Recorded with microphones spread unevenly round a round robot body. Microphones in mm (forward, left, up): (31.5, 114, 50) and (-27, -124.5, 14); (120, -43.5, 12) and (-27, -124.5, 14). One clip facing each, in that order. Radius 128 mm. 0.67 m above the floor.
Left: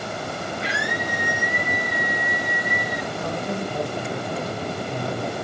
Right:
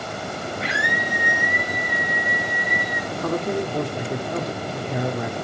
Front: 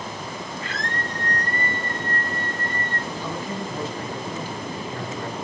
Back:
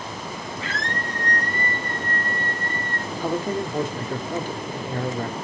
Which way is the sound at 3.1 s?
115° right.